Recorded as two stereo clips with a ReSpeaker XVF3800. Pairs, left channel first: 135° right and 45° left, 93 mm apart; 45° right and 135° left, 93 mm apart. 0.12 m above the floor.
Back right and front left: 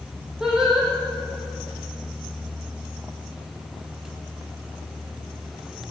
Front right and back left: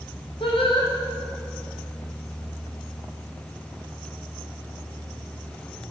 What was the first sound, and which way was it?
Singing, 35° right.